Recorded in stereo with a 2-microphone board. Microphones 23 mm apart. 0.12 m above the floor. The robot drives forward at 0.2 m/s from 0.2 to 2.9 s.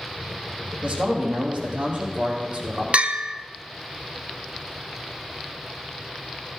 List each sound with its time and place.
0.8 s a man speaking: 35° right (ahead or behind), 4 m; by 2.8 s 30° right (ahead or behind), 4 m
2.9 s a bell: 65° right (ahead or behind), 0.7 m